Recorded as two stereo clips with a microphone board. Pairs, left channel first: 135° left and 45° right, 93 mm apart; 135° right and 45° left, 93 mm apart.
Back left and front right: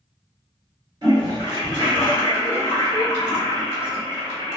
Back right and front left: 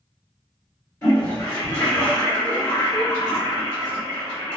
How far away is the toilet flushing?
About 2.0 m.